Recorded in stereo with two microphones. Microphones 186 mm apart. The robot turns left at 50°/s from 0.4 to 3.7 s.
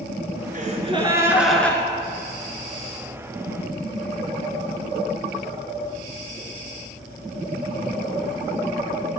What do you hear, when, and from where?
0.5 s a gasp: 130° right, 1.5 m; by 1.8 s 165° left, 1.5 m